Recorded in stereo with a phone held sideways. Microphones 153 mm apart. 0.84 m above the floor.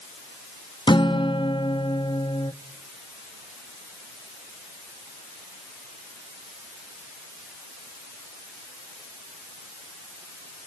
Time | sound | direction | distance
0.9 | a guitar | 30° left (ahead or behind) | 0.7 m